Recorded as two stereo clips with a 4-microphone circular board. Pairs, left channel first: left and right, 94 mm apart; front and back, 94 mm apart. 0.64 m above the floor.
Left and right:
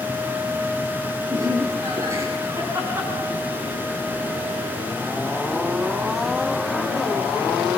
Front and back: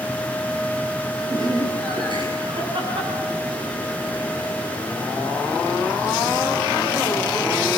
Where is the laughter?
140° right, 6.5 m; by 6.9 s straight behind, 10 m.